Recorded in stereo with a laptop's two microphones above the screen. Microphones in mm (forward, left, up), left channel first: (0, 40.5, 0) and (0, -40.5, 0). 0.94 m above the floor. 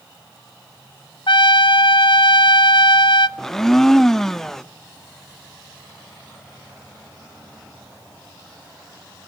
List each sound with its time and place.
1.3 s a trumpet: 70° left (ahead or behind), 0.7 m
3.4 s a blender: 5° left (ahead or behind), 0.7 m